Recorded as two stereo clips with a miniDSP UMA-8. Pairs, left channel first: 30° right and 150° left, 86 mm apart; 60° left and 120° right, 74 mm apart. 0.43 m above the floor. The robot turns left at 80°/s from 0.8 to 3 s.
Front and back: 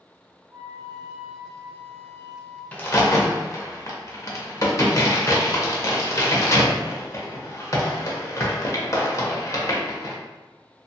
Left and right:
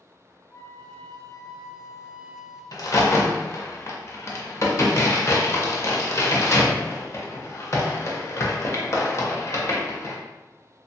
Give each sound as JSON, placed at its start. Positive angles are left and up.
{"t": 0.5, "sound": "a flute", "azimuth_deg": 105, "distance_m": 1.0}
{"t": 2.7, "sound": "a crack", "azimuth_deg": 40, "distance_m": 0.5}